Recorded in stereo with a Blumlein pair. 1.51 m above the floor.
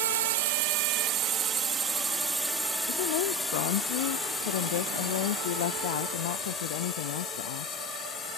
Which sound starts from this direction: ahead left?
A woman speaking, at 2.9 s.